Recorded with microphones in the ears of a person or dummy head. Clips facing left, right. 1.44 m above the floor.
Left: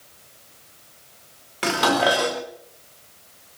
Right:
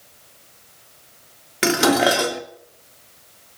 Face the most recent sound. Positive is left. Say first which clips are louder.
# right 4 dB
turn(degrees=-20)  # may be behind; listen again after turning